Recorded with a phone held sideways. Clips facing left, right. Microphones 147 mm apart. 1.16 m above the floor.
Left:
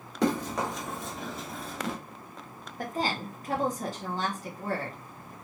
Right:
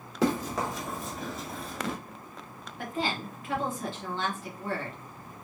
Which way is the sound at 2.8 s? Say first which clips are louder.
Left 1 dB; 40° left (ahead or behind).